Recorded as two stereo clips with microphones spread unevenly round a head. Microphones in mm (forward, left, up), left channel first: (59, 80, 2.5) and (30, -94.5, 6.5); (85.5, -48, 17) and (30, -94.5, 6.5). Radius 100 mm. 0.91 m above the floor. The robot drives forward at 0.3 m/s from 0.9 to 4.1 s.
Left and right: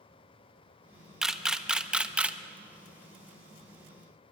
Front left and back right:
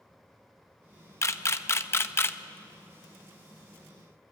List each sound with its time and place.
1.2 s a camera shutter: 10° right, 1.3 m; by 2.4 s 15° right, 1.0 m